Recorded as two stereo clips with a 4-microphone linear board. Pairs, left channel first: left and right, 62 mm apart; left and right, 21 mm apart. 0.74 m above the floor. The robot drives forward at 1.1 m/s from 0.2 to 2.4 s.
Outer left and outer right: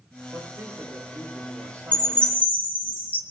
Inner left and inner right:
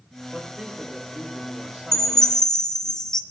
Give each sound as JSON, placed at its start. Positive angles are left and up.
{"t": 0.3, "sound": "a man speaking", "side_deg": -65, "distance_m": 8.5}
{"t": 1.9, "sound": "a chime", "side_deg": 25, "distance_m": 1.5}